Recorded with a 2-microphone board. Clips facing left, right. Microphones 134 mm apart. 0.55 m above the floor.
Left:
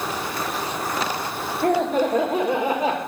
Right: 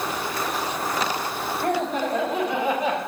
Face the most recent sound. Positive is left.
turn(degrees=35)  # may be behind; listen again after turning